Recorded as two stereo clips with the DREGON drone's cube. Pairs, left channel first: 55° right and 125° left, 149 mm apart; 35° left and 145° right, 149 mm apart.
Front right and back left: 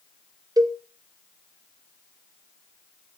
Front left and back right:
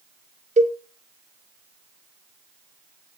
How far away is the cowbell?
About 0.6 m.